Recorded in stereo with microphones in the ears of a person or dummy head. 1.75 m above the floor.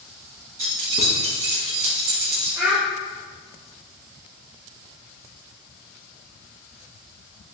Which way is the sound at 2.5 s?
15° right (ahead or behind).